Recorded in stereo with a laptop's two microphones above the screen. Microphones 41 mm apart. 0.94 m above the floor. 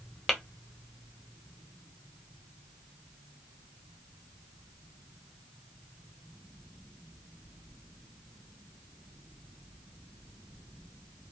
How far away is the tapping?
About 0.8 m.